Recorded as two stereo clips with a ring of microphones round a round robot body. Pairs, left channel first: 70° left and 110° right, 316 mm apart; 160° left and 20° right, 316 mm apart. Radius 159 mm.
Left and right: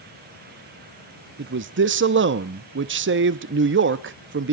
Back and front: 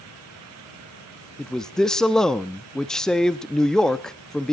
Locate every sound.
1.4 s a man speaking: 115° right, 0.8 m